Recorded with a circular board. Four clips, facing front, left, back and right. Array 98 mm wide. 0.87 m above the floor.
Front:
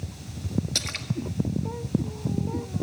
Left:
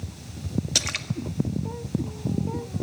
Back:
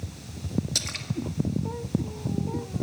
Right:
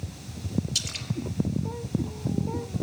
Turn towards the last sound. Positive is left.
turn(degrees=75)